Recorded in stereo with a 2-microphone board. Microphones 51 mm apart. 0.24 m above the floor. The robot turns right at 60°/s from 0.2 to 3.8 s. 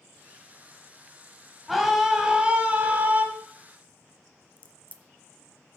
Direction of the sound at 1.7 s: Straight behind.